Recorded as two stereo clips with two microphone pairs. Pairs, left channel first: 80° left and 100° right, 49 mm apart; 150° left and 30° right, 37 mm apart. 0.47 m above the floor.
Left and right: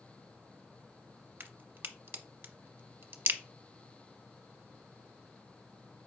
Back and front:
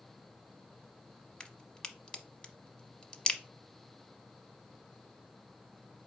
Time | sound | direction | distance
1.4 | a crack | 145° right | 0.7 m